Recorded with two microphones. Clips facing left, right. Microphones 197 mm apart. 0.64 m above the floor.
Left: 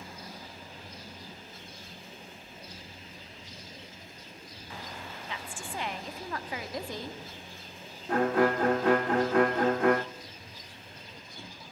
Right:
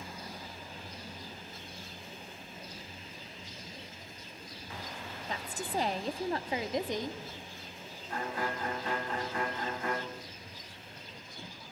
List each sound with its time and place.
5.3 s a woman speaking: 40° right (ahead or behind), 1.4 m; by 7.2 s 15° right (ahead or behind), 1.6 m
8.1 s a violin: 70° left (ahead or behind), 1.1 m